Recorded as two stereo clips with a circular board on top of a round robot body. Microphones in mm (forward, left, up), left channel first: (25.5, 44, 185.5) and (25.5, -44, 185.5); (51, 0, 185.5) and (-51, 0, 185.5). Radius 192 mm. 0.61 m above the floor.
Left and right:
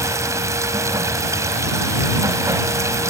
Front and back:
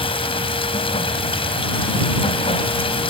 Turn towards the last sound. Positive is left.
turn(degrees=-35)